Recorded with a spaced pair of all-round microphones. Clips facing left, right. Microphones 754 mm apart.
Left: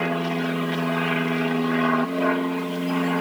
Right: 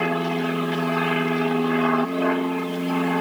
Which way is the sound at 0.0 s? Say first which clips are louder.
Right 1 dB; centre (ahead or behind).